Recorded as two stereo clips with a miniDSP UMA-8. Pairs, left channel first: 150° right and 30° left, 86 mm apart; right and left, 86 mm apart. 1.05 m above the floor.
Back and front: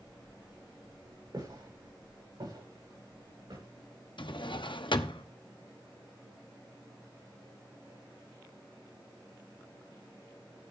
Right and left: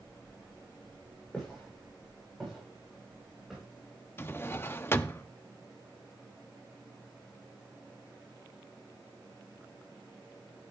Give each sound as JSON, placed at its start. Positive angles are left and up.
{"t": 1.3, "sound": "footsteps", "azimuth_deg": -5, "distance_m": 9.0}
{"t": 4.2, "sound": "a drawer", "azimuth_deg": -150, "distance_m": 0.8}